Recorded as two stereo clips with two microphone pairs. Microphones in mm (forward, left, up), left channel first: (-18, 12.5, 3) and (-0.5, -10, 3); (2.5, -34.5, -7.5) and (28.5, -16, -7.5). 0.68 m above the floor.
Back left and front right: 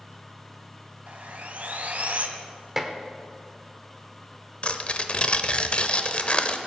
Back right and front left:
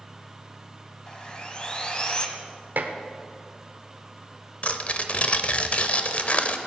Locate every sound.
1.1 s sawing: 85° right, 1.2 m
2.8 s dishes clattering: 30° left, 1.0 m
4.6 s tearing paper: 175° left, 0.7 m